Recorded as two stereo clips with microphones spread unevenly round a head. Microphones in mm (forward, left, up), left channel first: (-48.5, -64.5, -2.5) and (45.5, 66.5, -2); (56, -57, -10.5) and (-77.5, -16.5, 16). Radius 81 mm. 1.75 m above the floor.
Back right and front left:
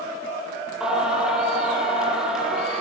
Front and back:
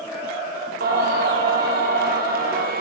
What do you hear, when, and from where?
0.8 s singing: 140° left, 9.5 m